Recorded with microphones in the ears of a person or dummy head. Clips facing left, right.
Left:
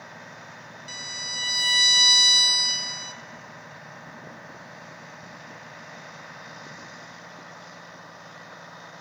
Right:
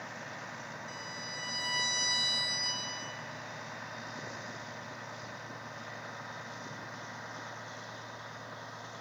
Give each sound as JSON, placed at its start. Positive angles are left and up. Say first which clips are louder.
{"t": 0.9, "sound": "a violin", "louder": "left 1 dB", "side_deg": 50, "distance_m": 0.7}